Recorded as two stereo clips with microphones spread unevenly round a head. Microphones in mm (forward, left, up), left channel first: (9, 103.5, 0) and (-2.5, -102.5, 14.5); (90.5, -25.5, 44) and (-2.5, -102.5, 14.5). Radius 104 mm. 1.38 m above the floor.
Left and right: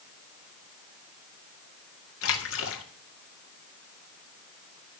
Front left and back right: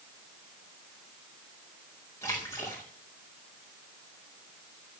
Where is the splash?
115° left, 2 m.